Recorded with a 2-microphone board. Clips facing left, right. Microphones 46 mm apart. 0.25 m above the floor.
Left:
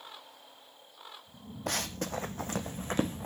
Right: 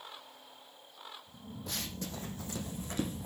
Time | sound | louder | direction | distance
1.7 | running footsteps | left 7 dB | 65° left (ahead or behind) | 0.7 m